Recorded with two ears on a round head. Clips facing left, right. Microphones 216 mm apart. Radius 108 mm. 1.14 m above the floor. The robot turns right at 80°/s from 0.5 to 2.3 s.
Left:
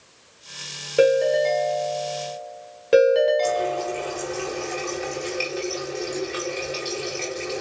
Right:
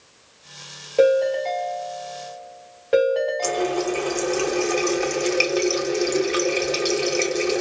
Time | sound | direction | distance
1.0 | a ringtone | 25° left | 1.5 m
3.4 | a running tap | 65° right (ahead or behind) | 0.9 m